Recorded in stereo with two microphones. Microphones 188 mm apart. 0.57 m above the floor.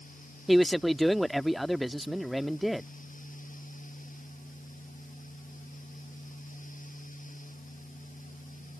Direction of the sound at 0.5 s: Centre (ahead or behind).